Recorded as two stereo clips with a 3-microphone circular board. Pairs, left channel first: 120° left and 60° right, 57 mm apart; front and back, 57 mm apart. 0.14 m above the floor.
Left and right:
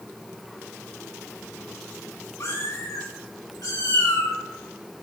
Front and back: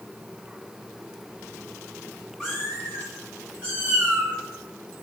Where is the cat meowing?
90° left, 3.5 m; by 4.3 s 115° left, 5.5 m.